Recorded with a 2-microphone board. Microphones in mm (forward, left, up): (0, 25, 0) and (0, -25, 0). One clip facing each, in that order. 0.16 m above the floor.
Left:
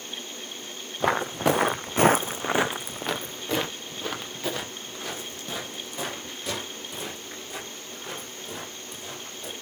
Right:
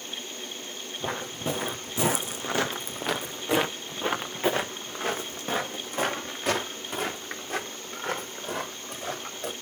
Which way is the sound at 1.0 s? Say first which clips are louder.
Left 9 dB; 80° left.